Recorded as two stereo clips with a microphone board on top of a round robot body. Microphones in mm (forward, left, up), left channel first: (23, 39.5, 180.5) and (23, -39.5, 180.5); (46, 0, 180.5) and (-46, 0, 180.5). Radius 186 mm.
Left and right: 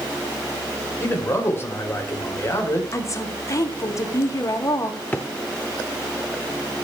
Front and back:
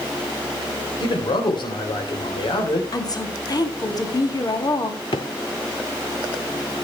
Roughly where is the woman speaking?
Ahead left.